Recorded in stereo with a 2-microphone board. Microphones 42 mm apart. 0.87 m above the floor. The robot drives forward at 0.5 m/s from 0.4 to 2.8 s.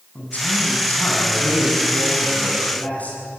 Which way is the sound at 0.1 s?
40° left (ahead or behind).